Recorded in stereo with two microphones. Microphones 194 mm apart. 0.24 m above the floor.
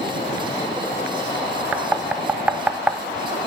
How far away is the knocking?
About 0.7 m.